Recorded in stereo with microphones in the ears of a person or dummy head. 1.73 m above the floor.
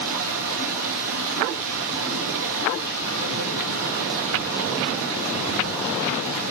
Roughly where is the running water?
Right.